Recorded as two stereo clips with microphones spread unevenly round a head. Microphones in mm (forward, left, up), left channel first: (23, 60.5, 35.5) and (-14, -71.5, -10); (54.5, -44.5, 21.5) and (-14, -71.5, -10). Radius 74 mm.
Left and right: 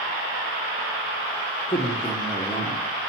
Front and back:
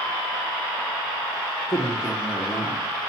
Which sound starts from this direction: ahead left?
A man speaking, at 1.7 s.